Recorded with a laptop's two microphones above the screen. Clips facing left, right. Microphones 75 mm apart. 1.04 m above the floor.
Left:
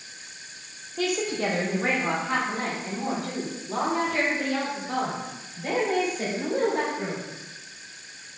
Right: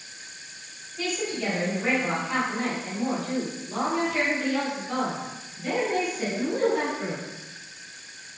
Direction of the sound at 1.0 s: 65° left (ahead or behind).